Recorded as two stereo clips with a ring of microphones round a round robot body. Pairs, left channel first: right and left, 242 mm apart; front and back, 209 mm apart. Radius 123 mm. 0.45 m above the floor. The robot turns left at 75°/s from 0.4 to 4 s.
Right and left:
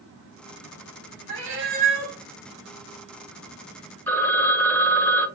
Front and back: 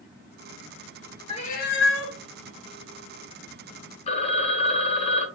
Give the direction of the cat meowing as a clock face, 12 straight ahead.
10 o'clock.